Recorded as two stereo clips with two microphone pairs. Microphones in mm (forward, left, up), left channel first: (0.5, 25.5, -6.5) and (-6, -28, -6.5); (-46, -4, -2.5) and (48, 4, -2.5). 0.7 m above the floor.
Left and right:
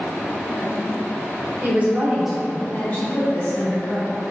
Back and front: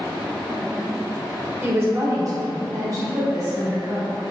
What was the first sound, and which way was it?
A woman speaking, 55° right.